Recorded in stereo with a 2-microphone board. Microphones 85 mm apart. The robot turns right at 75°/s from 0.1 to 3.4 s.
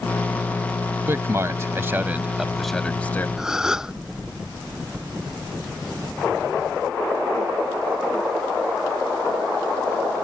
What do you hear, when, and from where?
1.1 s a man speaking: 30° right (ahead or behind); by 3.3 s 25° left (ahead or behind)
3.4 s a gasp: 5° right (ahead or behind)